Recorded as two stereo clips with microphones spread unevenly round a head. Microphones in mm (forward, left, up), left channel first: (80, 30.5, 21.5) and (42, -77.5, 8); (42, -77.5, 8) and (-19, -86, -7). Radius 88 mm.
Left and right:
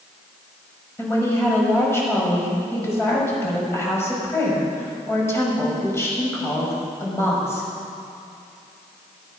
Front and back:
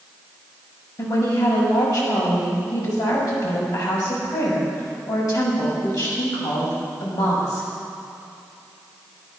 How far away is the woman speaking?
About 6 m.